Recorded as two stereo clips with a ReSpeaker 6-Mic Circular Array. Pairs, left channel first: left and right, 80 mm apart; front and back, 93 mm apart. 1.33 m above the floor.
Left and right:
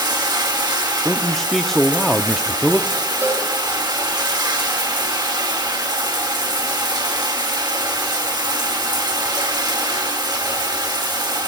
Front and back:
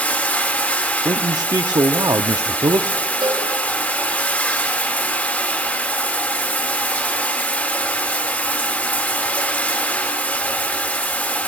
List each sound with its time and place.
0.0 s running water: 70° right, 1.9 m
1.1 s a man speaking: 175° left, 0.6 m
3.2 s a cowbell: 150° right, 6.5 m